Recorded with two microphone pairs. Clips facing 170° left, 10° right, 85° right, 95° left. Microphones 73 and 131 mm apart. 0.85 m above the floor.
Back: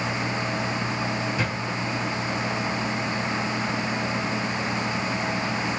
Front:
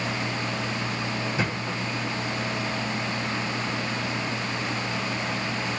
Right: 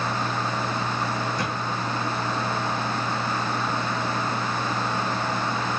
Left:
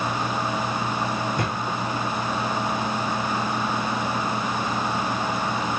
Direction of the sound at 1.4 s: 60° left.